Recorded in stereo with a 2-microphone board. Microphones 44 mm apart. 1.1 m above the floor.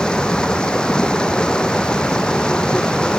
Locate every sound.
0.0 s running water: 20° left (ahead or behind)